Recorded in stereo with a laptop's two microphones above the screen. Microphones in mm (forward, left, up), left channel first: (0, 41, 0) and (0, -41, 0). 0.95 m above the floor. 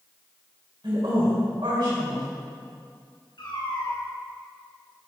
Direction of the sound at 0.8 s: 70° right (ahead or behind).